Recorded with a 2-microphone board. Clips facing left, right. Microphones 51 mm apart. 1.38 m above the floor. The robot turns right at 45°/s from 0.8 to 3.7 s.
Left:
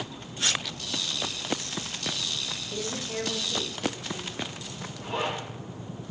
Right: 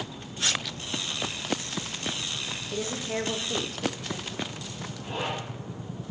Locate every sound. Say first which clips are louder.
2.7 s a woman speaking: right 3 dB; 175° right, 0.8 m; by 4.4 s 130° right, 0.8 m
5.0 s a zipper: left 2 dB; 55° left (ahead or behind), 3.5 m